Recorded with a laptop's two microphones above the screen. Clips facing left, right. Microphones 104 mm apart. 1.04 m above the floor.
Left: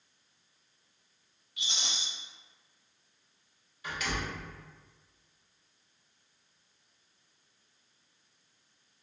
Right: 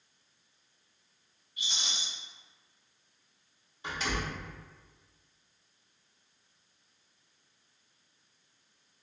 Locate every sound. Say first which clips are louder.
1.6 s a rattle: even; 70° left (ahead or behind), 1.2 m
3.8 s a door slam: right 1 dB; 30° right (ahead or behind), 1.3 m